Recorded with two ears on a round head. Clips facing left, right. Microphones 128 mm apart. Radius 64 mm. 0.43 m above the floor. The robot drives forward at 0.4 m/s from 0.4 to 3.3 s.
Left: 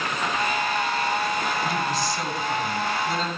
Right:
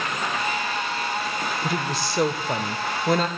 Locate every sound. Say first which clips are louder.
1.6 s a woman speaking: left 1 dB; 50° right (ahead or behind), 1.3 m; by 3.3 s 45° right (ahead or behind), 1.3 m